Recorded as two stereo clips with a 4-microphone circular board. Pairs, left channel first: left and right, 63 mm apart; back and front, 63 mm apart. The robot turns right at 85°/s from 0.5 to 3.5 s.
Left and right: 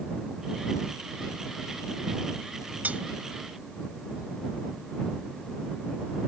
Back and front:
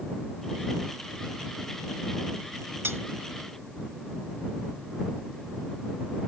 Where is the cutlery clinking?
35° right; by 3.0 s 25° right.